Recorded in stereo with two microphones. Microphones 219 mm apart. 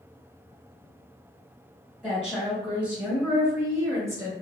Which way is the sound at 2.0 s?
Centre (ahead or behind).